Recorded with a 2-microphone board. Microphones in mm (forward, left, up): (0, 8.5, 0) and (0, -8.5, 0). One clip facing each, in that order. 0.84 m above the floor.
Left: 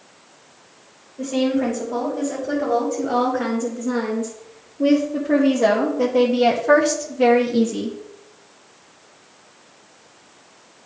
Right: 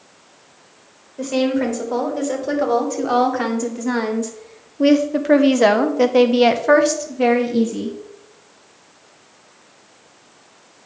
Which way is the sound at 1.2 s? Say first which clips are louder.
Right 1 dB; 65° right (ahead or behind).